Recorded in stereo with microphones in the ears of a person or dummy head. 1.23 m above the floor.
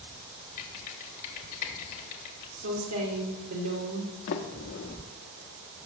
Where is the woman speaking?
90° right, 2 m.